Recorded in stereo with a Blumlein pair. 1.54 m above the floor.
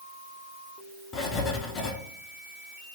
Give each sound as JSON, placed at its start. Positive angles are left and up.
{"t": 1.1, "sound": "writing", "azimuth_deg": 30, "distance_m": 0.6}